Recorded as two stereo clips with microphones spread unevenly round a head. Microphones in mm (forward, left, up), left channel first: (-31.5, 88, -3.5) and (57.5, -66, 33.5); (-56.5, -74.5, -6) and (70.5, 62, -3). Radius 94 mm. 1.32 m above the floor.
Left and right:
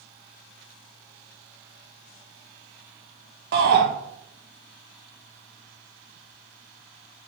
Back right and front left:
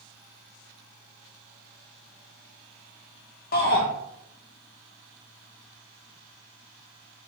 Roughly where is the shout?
Right.